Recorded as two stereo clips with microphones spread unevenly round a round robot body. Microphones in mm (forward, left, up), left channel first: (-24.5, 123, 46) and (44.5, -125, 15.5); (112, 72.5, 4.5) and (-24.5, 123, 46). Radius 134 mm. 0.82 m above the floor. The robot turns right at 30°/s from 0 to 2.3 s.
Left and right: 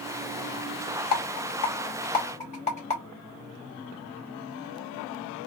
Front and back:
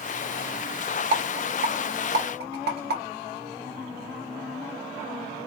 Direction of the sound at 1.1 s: 135° left.